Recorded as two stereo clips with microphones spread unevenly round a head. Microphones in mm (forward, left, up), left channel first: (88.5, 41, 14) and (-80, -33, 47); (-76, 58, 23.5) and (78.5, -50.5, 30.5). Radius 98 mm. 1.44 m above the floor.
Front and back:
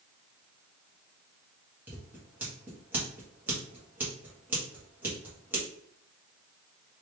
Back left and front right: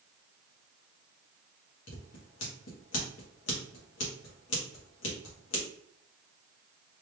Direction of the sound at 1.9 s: 130° left.